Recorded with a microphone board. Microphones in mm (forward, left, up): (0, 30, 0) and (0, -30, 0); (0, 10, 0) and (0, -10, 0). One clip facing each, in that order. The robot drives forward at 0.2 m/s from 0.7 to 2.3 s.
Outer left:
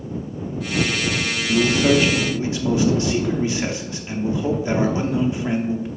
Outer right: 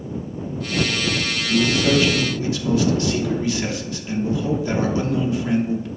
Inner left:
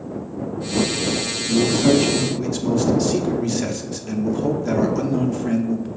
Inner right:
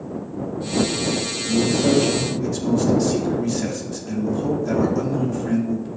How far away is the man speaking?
About 0.5 m.